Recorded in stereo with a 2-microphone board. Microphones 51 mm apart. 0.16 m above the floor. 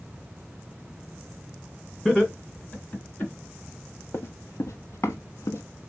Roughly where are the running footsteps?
Left.